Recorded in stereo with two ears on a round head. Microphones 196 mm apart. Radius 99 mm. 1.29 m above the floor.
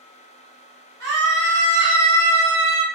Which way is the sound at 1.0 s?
55° right (ahead or behind).